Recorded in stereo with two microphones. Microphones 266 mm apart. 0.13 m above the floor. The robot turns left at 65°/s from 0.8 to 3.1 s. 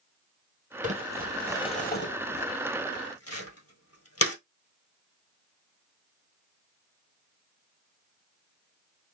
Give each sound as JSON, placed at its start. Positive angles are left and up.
{"t": 0.8, "sound": "crumpling", "side_deg": -30, "distance_m": 1.6}